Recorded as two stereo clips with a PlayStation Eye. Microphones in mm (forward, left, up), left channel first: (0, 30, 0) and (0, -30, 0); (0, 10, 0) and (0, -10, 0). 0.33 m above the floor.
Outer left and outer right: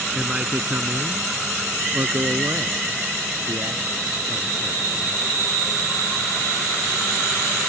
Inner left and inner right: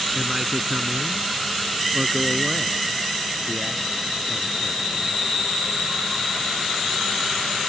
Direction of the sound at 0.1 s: 15° right (ahead or behind).